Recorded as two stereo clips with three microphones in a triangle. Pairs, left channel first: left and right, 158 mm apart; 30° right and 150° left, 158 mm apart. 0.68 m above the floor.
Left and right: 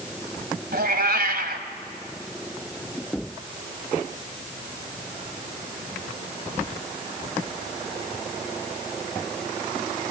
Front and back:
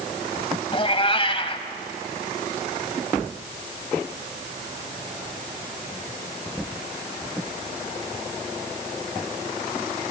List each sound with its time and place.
0.7 s a cat meowing: 85° right, 2 m